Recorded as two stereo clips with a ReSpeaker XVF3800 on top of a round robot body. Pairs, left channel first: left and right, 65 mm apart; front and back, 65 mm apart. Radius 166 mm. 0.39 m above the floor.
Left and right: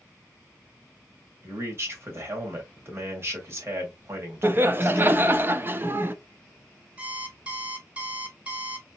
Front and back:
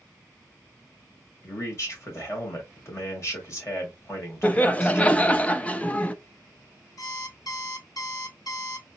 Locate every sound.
1.4 s a man speaking: 40° right, 2.5 m
4.4 s laughter: 60° right, 0.9 m
7.0 s an alarm clock: 20° right, 1.4 m